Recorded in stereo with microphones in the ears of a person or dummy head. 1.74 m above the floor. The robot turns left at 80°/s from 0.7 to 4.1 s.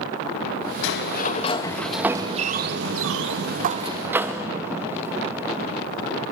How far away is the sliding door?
About 1.9 m.